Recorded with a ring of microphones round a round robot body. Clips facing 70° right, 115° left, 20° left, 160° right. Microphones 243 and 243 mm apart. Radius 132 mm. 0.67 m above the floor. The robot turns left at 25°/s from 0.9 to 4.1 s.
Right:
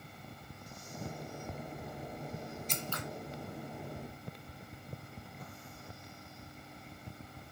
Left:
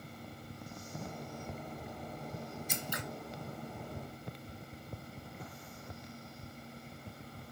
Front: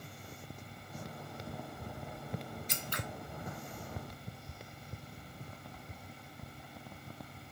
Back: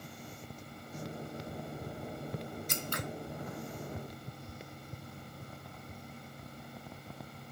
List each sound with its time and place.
2.7 s scissors: 170° right, 0.7 m; by 3.0 s 175° right, 0.7 m